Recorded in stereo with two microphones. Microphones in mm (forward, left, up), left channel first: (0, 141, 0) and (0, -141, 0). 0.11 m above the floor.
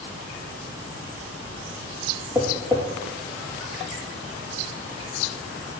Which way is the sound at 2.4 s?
10° right (ahead or behind).